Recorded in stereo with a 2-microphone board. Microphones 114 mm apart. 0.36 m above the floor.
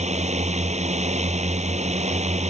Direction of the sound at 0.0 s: 80° right.